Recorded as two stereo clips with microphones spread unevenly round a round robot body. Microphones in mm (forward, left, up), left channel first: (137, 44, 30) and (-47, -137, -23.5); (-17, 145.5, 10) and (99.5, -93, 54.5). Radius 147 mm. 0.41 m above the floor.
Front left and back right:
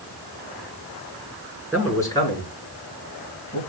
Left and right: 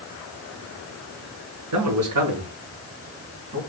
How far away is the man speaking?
About 6 m.